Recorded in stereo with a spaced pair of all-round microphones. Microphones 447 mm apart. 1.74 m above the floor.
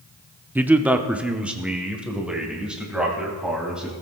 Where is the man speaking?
5° right (ahead or behind), 0.6 m; by 3.9 s centre (ahead or behind), 3.5 m.